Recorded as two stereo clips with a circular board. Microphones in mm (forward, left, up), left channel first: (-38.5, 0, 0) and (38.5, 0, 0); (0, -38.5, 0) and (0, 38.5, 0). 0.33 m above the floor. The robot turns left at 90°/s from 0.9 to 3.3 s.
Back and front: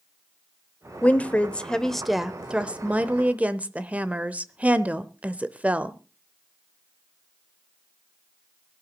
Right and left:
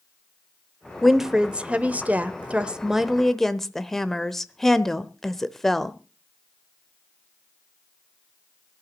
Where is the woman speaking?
170° right, 0.8 m; by 6.0 s 20° right, 0.8 m.